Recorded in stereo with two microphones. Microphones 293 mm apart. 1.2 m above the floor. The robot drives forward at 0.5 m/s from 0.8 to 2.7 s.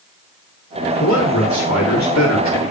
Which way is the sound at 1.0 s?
80° left.